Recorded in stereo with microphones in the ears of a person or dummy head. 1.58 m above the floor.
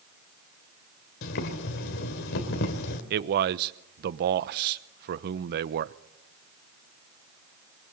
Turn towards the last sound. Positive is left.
turn(degrees=-60)  # may be behind; listen again after turning